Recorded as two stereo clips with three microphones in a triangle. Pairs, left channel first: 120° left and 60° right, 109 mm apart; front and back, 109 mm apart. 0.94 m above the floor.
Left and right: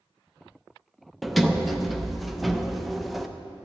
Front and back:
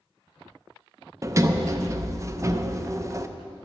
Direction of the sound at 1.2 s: 150° right.